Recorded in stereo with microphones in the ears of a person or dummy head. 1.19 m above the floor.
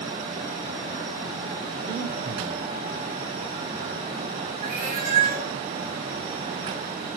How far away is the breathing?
About 2.5 m.